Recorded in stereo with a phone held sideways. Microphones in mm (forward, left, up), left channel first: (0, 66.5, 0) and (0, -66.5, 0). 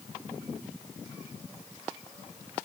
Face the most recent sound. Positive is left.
No sound to turn to.